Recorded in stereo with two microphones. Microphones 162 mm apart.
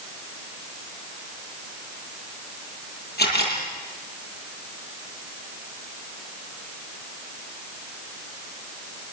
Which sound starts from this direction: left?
A camera shutter, at 3.2 s.